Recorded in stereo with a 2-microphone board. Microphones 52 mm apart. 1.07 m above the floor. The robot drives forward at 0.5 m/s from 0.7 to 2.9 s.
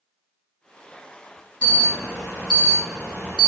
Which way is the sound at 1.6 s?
20° left (ahead or behind).